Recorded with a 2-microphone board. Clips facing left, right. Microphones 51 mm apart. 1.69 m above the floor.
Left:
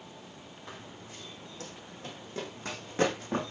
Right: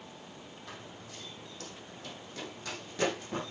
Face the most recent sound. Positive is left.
turn(degrees=45)  # may be behind; listen again after turning